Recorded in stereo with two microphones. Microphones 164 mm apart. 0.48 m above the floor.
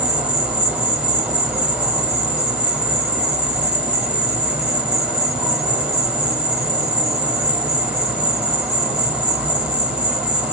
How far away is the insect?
About 1.0 m.